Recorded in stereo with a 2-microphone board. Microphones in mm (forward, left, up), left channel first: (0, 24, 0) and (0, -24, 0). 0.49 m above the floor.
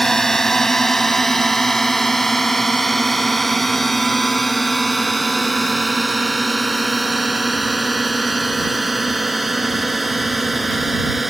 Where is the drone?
10° left (ahead or behind); by 11.3 s 5° right (ahead or behind).